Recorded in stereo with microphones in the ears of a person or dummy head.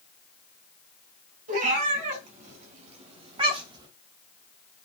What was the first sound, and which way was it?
A cat meowing, 50° right (ahead or behind).